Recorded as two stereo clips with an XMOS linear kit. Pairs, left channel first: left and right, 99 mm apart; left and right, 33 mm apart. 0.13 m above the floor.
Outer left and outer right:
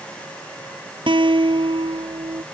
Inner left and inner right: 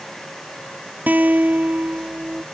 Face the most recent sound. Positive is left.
turn(degrees=-60)  # may be behind; listen again after turning